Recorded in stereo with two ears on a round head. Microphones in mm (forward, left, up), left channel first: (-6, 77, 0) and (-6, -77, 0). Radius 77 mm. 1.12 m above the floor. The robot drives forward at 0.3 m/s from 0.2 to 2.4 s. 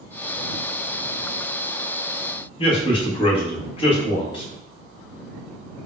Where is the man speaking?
30° left (ahead or behind), 1.3 m.